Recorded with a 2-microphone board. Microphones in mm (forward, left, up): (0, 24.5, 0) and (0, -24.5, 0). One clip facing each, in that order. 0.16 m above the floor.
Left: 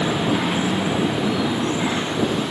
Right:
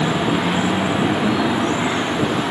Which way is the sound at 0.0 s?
20° right (ahead or behind).